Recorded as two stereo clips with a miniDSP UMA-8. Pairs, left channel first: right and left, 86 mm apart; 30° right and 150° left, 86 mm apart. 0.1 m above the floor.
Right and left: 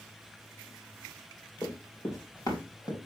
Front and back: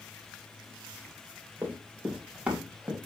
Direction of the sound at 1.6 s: 145° right.